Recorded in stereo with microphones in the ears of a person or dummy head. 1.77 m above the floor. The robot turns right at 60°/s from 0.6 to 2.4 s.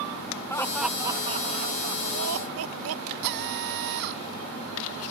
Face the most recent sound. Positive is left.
turn(degrees=-65)  # may be behind; listen again after turning